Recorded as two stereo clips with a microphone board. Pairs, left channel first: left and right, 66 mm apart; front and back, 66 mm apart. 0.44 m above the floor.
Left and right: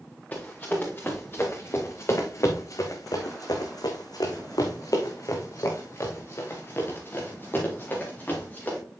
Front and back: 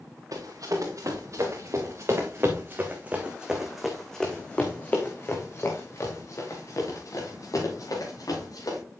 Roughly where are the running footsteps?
Behind left.